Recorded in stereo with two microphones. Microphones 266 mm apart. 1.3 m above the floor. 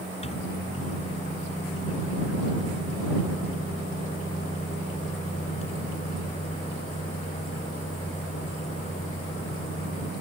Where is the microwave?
20° left (ahead or behind).